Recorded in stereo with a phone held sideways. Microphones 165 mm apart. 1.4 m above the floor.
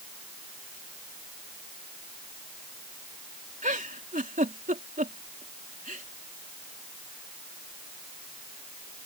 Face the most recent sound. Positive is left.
turn(degrees=-55)  # may be behind; listen again after turning